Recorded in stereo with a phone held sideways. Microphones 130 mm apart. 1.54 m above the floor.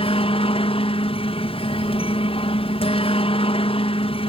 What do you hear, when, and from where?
0.0 s a helicopter: 45° left (ahead or behind)